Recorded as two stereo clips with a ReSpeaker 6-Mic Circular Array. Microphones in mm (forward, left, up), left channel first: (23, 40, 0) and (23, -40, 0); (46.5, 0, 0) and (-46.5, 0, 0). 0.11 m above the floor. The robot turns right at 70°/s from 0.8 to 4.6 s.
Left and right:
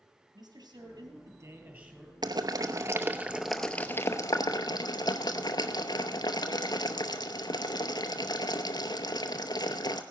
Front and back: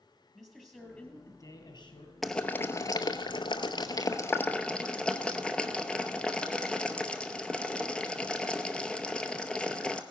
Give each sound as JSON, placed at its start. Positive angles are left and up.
{"t": 0.3, "sound": "a man speaking", "azimuth_deg": -80, "distance_m": 2.5}
{"t": 2.2, "sound": "boiling", "azimuth_deg": -90, "distance_m": 0.7}